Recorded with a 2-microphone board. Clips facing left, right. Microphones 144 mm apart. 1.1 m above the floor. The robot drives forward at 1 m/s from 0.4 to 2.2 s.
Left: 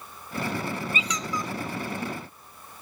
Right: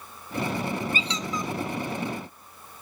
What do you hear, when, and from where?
0.9 s a squeak: 35° right (ahead or behind), 0.6 m; by 1.5 s 20° right (ahead or behind), 1.1 m